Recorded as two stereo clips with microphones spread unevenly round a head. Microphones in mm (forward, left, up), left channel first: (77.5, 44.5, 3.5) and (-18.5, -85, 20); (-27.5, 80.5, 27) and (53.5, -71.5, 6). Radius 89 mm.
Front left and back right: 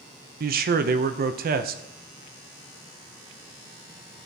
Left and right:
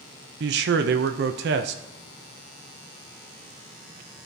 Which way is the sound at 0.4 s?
95° right.